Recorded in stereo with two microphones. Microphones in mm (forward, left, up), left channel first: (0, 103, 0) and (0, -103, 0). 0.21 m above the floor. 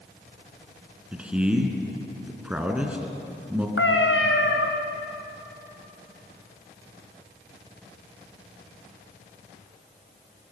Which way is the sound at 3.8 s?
75° left (ahead or behind).